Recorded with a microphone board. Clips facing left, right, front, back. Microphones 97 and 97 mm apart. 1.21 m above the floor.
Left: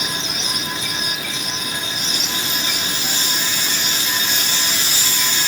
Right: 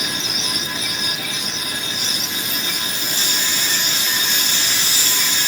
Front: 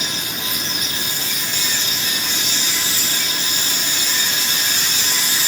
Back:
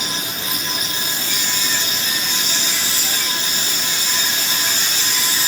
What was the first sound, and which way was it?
Only background noise.